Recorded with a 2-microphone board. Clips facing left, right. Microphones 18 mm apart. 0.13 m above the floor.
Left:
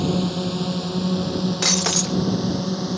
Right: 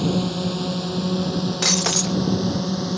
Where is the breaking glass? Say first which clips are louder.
Right 1 dB; centre (ahead or behind).